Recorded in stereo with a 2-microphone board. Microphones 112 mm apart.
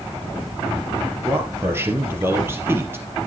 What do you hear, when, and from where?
1.2 s a man speaking: 20° right (ahead or behind), 2.5 m